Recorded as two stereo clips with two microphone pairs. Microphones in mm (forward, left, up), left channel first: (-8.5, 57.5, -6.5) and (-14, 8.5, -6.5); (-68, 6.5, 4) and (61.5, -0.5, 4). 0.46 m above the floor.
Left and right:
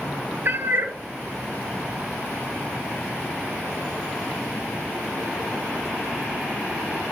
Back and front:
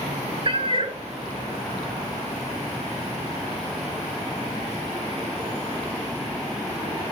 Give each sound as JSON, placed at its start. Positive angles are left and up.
{"t": 0.5, "sound": "a cat meowing", "azimuth_deg": -50, "distance_m": 0.9}